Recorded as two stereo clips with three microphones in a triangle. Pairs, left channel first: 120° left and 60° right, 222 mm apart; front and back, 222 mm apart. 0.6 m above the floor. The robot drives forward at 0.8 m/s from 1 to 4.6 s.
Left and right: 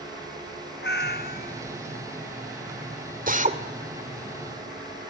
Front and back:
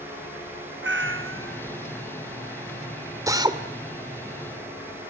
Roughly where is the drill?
Right.